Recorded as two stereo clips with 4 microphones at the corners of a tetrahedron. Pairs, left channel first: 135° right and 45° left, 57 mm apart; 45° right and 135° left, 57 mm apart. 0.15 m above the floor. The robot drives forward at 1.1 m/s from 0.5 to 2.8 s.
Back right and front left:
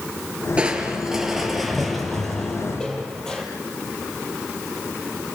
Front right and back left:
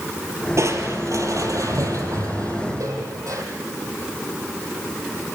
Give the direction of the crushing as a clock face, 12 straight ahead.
8 o'clock.